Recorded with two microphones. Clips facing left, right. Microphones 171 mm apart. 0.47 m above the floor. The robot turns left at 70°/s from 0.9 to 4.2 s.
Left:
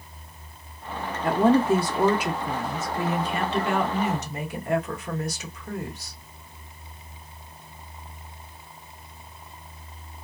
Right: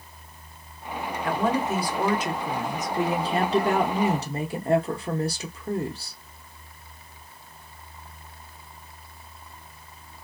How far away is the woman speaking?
About 0.8 m.